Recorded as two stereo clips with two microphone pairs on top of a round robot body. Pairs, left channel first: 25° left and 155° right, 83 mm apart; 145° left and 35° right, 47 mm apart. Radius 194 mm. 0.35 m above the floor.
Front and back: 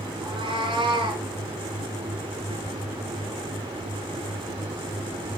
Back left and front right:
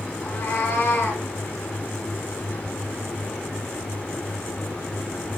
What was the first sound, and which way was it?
A cat meowing, 175° right.